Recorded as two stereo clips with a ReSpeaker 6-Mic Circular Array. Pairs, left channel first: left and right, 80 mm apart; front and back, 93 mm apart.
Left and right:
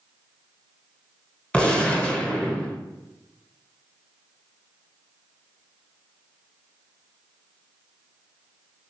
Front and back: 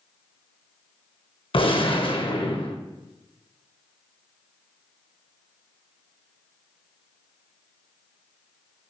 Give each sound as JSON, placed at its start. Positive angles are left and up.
{"t": 1.5, "sound": "a gunshot", "azimuth_deg": 10, "distance_m": 1.1}